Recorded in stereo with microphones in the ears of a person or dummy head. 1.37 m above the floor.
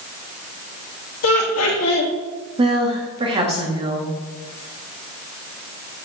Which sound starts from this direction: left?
Laughter, at 1.2 s.